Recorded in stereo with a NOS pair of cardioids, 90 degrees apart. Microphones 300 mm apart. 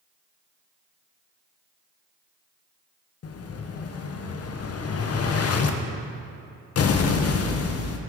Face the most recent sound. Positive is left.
turn(degrees=50)